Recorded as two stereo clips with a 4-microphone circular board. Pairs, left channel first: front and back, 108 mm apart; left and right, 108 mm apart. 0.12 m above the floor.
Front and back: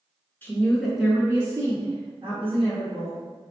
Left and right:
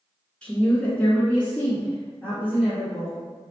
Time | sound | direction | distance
0.4 | a woman speaking | 30° left | 1.2 m